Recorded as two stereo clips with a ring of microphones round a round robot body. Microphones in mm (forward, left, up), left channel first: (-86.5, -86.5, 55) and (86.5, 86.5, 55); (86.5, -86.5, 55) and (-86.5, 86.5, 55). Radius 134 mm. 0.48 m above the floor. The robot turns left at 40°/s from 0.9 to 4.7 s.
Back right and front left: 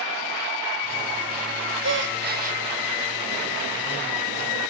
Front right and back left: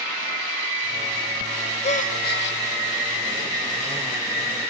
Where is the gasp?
20° left, 2 m; by 2.6 s 15° right, 2 m.